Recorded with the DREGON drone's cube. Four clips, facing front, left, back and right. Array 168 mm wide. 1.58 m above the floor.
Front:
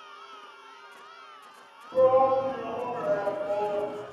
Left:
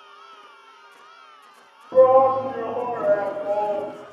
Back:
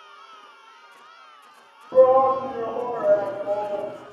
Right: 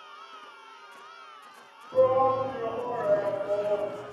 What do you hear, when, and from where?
1.9 s a shout: 125° left, 2.5 m; by 3.9 s 105° left, 3 m